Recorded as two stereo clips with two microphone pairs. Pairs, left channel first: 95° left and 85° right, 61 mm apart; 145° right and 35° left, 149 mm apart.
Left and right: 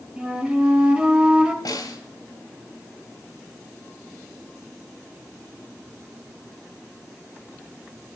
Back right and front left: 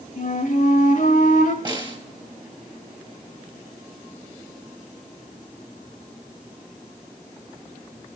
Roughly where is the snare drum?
Left.